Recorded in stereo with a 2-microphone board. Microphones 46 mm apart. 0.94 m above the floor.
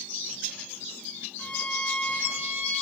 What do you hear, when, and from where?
1.4 s a violin: 30° left (ahead or behind), 0.8 m